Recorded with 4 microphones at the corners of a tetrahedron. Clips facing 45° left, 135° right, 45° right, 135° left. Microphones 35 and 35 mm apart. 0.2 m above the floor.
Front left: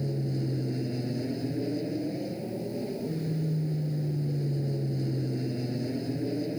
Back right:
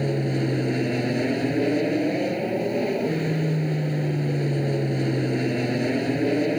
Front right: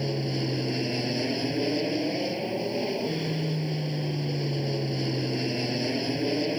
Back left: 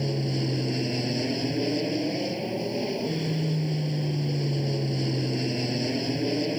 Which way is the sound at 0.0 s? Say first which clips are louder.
Back right 8 dB, back left 1 dB; 130° right.